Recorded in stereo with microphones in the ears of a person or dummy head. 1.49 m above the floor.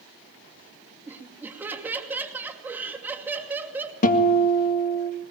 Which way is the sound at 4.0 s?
45° left (ahead or behind).